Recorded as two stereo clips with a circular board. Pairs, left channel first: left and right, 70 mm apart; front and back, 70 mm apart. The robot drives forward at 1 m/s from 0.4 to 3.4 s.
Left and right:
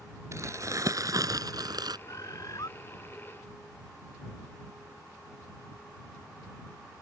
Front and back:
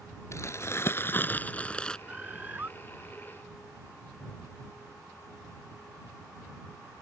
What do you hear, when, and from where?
0.3 s crumpling: 45° right; by 2.0 s 80° right
2.1 s a bird: 110° left; by 2.7 s 120° left